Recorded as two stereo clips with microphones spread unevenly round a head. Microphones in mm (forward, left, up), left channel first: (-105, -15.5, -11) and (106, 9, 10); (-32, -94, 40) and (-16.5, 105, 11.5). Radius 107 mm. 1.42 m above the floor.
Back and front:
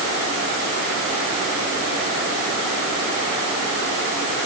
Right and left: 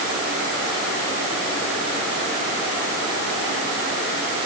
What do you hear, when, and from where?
Only background noise.